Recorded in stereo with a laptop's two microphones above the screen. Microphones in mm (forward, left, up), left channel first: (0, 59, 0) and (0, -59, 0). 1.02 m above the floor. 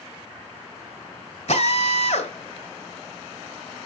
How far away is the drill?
About 3 m.